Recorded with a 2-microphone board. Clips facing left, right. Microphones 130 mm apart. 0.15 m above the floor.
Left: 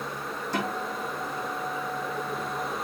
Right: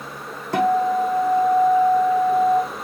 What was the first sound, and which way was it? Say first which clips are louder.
A guitar: right 15 dB; 65° right (ahead or behind).